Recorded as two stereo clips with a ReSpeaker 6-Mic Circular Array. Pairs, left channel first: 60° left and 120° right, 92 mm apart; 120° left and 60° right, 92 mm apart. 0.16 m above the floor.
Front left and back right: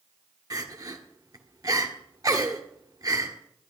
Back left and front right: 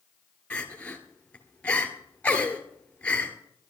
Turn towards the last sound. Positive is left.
turn(degrees=-165)